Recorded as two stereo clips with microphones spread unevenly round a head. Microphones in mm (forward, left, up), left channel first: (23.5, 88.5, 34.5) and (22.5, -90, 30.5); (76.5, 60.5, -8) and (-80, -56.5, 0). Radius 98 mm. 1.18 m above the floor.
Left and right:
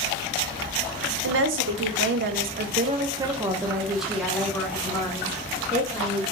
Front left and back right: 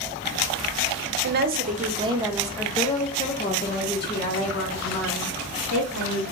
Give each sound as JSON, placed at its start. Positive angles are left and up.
{"t": 1.2, "sound": "a woman speaking", "azimuth_deg": -105, "distance_m": 0.9}